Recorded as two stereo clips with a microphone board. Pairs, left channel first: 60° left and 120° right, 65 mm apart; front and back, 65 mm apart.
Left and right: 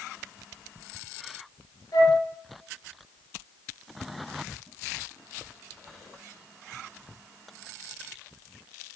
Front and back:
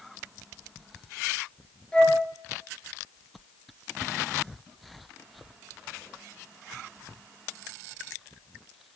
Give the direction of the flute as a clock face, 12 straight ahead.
10 o'clock.